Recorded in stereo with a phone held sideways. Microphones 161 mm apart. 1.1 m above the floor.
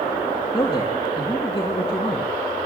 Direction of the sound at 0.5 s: 30° left (ahead or behind).